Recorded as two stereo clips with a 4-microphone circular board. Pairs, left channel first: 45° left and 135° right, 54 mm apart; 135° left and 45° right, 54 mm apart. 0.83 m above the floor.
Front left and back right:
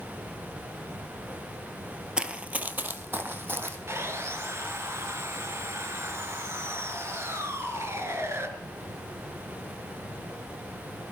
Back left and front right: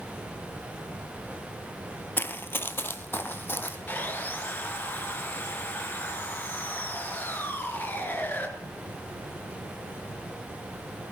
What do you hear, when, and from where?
2.2 s running footsteps: 160° left, 1.1 m; by 3.8 s 175° right, 2.5 m
3.9 s sawing: 170° right, 3.5 m